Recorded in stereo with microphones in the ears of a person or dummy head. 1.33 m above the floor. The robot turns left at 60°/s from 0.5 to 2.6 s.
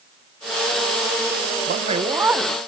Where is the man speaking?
135° right, 0.8 m; by 2.6 s 170° left, 0.8 m.